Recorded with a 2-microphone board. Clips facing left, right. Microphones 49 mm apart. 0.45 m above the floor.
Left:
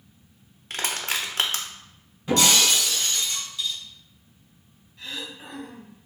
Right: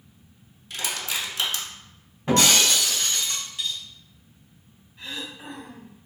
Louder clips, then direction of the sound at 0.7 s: Left 2 dB; 50° left (ahead or behind).